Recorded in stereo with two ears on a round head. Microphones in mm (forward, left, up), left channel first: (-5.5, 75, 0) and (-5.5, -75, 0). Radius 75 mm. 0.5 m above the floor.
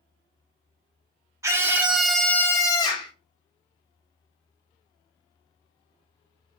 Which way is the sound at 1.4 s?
20° right (ahead or behind).